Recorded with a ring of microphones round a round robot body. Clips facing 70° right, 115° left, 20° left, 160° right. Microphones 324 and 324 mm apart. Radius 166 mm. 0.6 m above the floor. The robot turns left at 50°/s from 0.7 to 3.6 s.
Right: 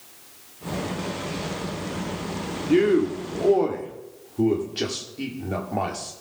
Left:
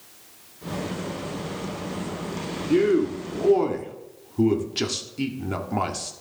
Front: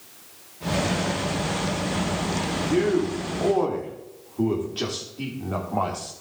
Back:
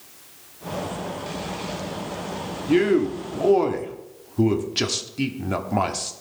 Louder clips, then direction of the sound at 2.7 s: Right 1 dB, back 4 dB; 140° right.